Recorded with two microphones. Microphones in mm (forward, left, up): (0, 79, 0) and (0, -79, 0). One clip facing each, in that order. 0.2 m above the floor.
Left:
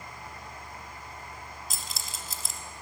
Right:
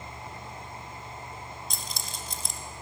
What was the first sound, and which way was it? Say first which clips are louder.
Keys jangling: right 2 dB; 5° left (ahead or behind).